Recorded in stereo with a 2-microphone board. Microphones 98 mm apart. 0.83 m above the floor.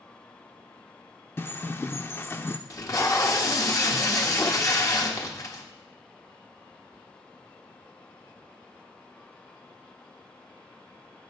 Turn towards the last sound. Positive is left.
turn(degrees=35)  # may be behind; listen again after turning